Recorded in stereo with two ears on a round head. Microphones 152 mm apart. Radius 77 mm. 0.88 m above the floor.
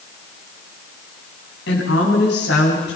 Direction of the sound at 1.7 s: 70° left (ahead or behind).